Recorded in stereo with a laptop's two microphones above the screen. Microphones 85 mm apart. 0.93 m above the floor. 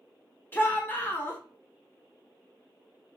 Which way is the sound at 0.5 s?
25° left (ahead or behind).